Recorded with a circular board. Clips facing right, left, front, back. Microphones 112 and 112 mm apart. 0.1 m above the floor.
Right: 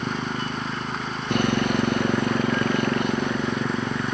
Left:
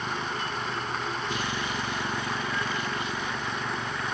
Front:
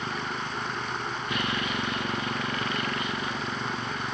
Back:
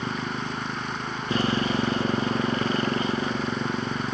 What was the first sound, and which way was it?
A motorcycle, 120° right.